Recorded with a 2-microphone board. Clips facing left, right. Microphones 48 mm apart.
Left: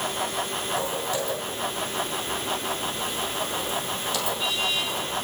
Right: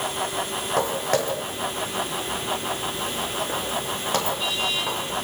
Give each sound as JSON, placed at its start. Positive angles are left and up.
{"t": 0.8, "sound": "footsteps", "side_deg": -55, "distance_m": 6.0}